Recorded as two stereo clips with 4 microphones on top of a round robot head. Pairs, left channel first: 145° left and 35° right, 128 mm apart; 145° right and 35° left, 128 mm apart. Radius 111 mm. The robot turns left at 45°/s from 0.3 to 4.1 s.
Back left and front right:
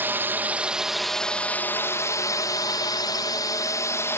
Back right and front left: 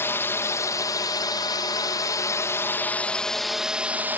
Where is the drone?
90° right; by 4.2 s 95° left.